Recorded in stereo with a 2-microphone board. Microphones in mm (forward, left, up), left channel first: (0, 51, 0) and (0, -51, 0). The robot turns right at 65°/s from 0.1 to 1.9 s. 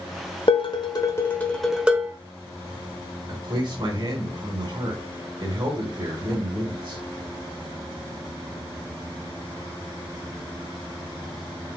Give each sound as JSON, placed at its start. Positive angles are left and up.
{"t": 0.5, "sound": "dishes clattering", "azimuth_deg": 100, "distance_m": 1.0}
{"t": 3.3, "sound": "a man speaking", "side_deg": -50, "distance_m": 2.0}